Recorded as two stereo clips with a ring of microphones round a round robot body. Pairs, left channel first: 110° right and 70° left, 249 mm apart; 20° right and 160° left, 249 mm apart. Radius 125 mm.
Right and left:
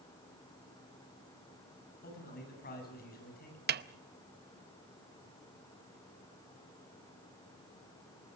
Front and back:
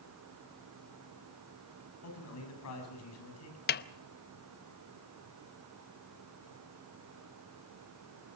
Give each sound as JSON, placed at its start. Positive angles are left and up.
{"t": 2.0, "sound": "a man speaking", "azimuth_deg": -55, "distance_m": 7.0}
{"t": 3.7, "sound": "a snare drum", "azimuth_deg": 25, "distance_m": 0.8}